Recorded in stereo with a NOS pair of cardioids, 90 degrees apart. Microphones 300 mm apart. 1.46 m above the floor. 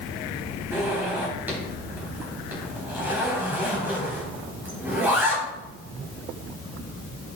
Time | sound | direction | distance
0.7 | a zipper | 5° right | 4 m